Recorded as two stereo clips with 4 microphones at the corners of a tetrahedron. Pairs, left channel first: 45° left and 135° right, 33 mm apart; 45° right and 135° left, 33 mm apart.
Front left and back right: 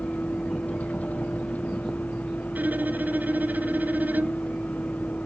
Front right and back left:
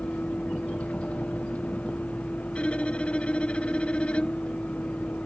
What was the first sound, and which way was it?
A vehicle, 5° left.